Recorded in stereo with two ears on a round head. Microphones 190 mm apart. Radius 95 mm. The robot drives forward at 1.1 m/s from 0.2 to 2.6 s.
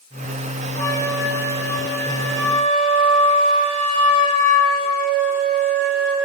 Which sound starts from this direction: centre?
A flute, at 0.8 s.